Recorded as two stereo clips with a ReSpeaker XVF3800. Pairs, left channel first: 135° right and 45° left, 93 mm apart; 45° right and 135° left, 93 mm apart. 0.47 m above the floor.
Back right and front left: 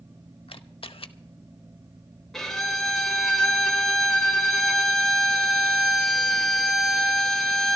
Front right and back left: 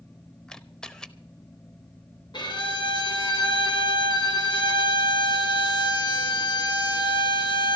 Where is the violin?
50° right, 2 m.